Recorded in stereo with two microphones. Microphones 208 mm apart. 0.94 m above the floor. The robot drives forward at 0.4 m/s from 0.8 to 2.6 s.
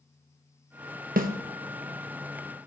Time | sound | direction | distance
1.2 | a snare drum | 45° right (ahead or behind) | 0.8 m